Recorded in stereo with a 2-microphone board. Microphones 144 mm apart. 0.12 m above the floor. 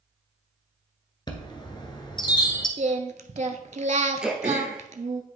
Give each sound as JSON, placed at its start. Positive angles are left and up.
{"t": 1.3, "sound": "a chime", "side_deg": 30, "distance_m": 1.0}
{"t": 2.8, "sound": "singing", "side_deg": -55, "distance_m": 0.6}
{"t": 4.2, "sound": "throat clearing", "side_deg": -5, "distance_m": 1.0}